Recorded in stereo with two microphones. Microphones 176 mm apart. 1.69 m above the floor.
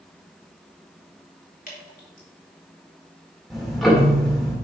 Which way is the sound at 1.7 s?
50° left (ahead or behind).